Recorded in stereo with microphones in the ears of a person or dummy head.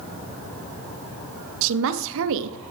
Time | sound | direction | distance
1.6 | a woman speaking | 70° right (ahead or behind) | 0.7 m